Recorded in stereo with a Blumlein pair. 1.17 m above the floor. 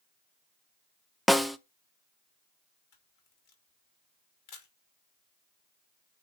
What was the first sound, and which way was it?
A snare drum, straight ahead.